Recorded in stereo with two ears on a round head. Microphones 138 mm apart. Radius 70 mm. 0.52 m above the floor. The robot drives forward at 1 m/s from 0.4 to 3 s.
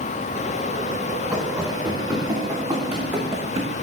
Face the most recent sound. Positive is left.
turn(degrees=-25)  # may be behind; listen again after turning